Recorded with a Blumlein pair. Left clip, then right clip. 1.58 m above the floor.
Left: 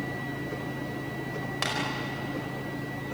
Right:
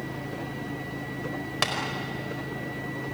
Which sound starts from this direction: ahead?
Tapping, at 1.6 s.